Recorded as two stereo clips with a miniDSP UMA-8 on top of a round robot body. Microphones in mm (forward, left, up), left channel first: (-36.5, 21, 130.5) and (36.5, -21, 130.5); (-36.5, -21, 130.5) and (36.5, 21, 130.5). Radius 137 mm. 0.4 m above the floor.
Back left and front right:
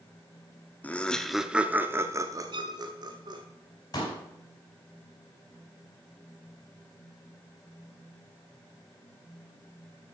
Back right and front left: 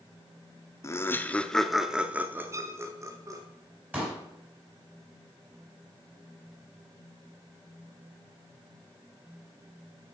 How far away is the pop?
About 4.5 m.